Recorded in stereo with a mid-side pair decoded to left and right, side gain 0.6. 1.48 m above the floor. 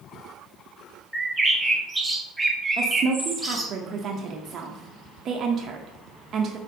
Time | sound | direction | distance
1.1 | a bird | 5° right | 0.6 m
2.8 | a woman speaking | 45° right | 0.5 m